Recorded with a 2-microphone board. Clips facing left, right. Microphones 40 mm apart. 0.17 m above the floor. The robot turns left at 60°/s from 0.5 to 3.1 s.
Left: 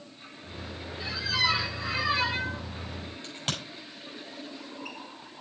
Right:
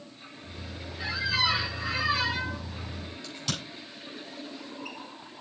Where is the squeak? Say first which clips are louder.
Right 1 dB; 135° right, 4 m; by 2.6 s 130° left, 4 m.